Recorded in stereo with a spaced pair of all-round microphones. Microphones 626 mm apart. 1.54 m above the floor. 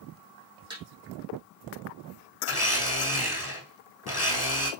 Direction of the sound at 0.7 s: 5° right (ahead or behind).